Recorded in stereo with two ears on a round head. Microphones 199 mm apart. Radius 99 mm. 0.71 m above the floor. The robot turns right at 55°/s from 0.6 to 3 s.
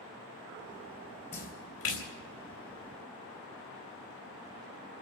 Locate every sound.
1.3 s a splash: 35° left (ahead or behind), 3 m; by 2.1 s 75° left (ahead or behind), 3 m